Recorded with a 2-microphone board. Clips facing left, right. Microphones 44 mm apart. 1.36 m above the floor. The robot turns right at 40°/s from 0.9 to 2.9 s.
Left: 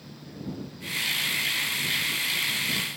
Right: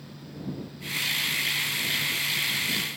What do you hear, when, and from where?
Only background noise.